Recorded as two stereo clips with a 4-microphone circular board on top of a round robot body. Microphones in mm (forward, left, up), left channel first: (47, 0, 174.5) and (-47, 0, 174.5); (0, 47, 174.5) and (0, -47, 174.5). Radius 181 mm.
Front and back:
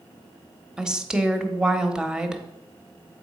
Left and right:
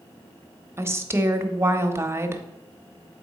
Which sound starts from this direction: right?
A woman speaking, at 0.8 s.